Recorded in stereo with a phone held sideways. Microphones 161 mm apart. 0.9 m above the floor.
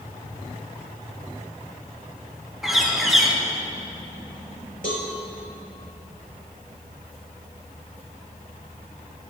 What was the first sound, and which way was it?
A bird, centre (ahead or behind).